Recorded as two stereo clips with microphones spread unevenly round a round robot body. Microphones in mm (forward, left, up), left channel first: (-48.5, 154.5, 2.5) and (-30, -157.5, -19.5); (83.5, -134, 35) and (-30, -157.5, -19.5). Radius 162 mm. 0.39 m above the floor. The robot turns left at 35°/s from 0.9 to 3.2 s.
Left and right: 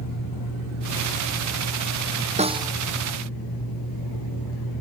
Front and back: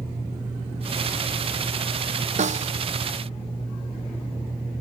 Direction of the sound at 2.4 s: 155° right.